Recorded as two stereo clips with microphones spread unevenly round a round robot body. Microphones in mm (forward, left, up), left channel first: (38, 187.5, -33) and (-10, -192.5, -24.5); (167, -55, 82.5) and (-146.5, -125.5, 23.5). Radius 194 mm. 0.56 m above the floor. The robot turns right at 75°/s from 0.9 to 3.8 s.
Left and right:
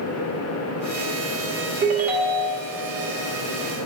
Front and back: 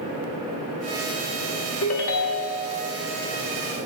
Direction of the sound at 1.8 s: 35° right.